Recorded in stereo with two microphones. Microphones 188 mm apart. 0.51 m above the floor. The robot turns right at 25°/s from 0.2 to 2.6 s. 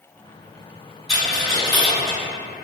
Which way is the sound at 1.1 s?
35° left (ahead or behind).